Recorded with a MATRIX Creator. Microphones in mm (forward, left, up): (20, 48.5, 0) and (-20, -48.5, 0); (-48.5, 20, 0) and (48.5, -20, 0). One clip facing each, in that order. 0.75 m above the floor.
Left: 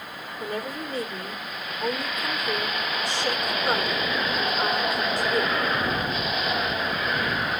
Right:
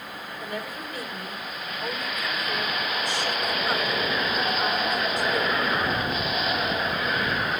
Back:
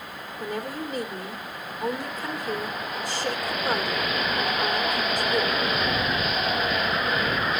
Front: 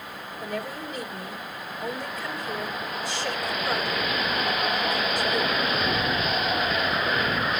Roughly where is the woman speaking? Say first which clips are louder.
Left 4 dB, back 2 dB; behind left.